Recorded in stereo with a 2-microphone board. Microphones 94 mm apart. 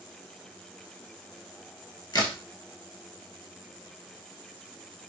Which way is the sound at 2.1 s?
50° left (ahead or behind).